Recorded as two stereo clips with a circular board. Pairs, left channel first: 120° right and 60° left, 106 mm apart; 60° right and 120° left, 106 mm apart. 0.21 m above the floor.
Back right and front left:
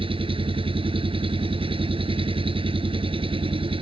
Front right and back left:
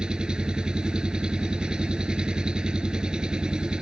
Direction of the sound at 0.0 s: 40° left.